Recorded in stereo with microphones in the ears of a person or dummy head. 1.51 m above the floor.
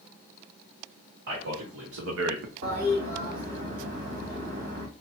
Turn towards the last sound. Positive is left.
turn(degrees=-55)  # may be behind; listen again after turning